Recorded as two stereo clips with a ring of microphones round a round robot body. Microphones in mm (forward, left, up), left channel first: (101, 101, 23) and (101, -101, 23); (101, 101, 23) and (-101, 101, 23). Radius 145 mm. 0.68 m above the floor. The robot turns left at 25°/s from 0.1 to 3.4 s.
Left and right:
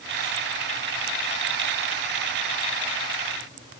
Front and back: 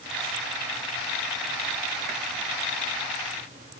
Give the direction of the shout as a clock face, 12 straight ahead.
No shout in this recording.